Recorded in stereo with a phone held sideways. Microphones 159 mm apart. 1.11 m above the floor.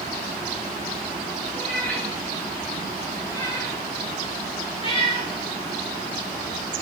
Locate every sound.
1.6 s a cat meowing: 5° left (ahead or behind), 6.5 m; by 5.3 s 35° left (ahead or behind), 5.5 m